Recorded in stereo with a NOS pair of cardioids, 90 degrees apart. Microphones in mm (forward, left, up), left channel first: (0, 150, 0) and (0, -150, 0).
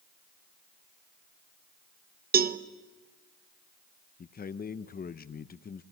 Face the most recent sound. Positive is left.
turn(degrees=30)